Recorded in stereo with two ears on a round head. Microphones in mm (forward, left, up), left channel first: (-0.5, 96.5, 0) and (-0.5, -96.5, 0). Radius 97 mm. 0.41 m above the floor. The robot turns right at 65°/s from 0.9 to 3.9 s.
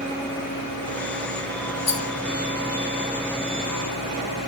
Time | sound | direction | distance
1.9 | a rattle | 25° left (ahead or behind) | 1.5 m